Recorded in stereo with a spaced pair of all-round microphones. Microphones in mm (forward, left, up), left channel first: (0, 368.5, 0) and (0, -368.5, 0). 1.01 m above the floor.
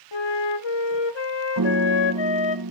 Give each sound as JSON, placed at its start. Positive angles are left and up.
{"t": 0.1, "sound": "a flute", "side_deg": 40, "distance_m": 0.7}
{"t": 1.6, "sound": "a piano", "side_deg": -30, "distance_m": 0.7}